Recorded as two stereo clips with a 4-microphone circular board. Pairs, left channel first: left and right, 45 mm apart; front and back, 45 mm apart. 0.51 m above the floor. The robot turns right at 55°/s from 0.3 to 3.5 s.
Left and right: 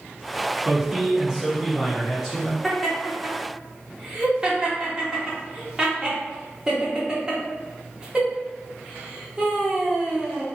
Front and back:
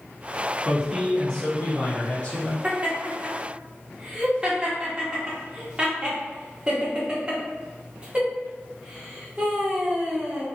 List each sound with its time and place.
0.7 s a man speaking: 95° right, 0.7 m; by 2.5 s 10° left, 0.7 m
2.6 s laughter: 175° left, 0.8 m; by 10.4 s 140° right, 0.8 m